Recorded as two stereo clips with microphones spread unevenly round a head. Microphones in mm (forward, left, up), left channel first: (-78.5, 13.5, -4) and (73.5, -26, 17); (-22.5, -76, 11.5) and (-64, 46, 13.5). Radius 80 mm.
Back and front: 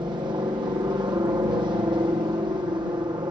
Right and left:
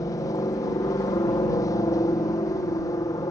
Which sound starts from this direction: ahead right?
A helicopter, at 0.0 s.